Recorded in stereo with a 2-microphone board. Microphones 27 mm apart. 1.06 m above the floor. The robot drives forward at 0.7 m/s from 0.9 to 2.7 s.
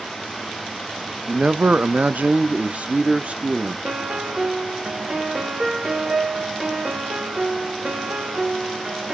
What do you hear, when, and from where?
1.3 s a man speaking: 40° right (ahead or behind), 0.8 m; by 3.8 s 50° right (ahead or behind), 0.7 m
3.9 s a piano: 40° right (ahead or behind), 3 m